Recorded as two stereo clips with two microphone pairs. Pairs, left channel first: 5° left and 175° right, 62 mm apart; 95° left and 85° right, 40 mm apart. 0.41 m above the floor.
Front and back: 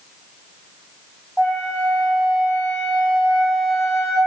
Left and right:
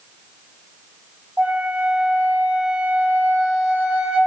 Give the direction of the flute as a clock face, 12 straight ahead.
4 o'clock.